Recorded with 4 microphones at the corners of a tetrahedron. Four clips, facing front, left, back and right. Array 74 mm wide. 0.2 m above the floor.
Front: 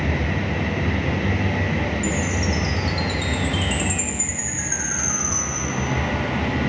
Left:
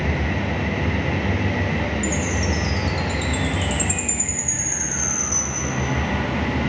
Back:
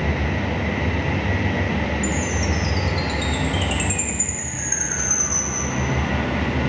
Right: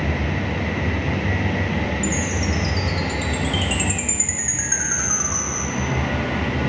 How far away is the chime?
About 1.1 m.